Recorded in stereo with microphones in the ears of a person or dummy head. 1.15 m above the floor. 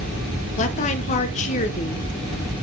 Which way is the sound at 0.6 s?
35° left (ahead or behind).